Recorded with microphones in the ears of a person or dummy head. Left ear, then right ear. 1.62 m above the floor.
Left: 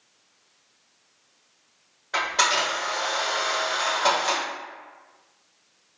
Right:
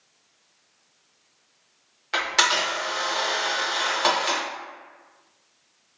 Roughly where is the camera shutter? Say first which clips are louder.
Right 1 dB; right.